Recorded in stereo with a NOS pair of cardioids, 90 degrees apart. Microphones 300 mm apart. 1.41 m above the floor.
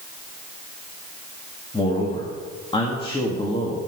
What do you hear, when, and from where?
1.7 s a man speaking: 15° left, 2 m